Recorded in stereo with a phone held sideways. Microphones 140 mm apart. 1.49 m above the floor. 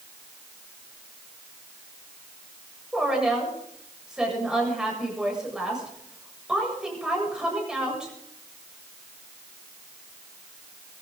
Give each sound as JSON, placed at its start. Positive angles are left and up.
{"t": 2.9, "sound": "a woman speaking", "side_deg": -5, "distance_m": 8.0}